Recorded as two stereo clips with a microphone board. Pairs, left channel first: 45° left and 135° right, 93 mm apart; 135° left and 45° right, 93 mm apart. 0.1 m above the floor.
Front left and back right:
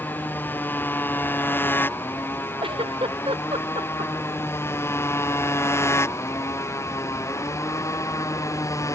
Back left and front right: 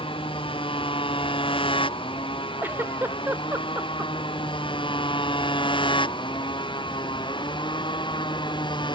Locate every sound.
0.0 s a motorcycle: 115° left; by 9.0 s 100° left
2.6 s a giggle: 115° right